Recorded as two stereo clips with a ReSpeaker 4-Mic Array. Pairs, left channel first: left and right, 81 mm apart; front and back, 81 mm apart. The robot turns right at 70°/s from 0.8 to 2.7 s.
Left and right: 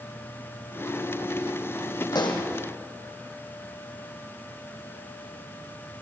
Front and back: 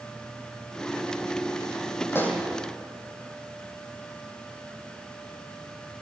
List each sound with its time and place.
2.1 s a pop: 60° left, 3.5 m; by 2.5 s 85° left, 3.5 m